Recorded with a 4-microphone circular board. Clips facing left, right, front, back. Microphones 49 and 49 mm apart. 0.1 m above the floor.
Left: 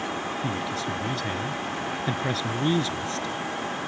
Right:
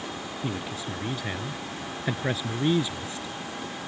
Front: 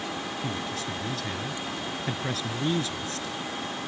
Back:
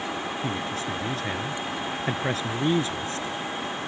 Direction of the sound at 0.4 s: 155° right.